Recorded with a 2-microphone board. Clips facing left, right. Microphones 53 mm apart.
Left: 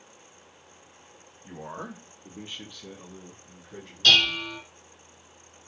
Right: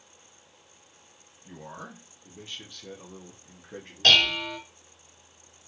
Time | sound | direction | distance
1.4 | a man speaking | 50° left (ahead or behind) | 1.2 m
4.0 | dishes clattering | 50° right (ahead or behind) | 1.4 m